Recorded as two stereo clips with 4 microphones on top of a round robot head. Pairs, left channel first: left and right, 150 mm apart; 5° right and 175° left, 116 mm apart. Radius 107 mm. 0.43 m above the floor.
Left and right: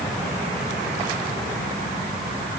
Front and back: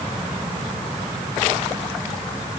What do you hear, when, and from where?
Only background noise.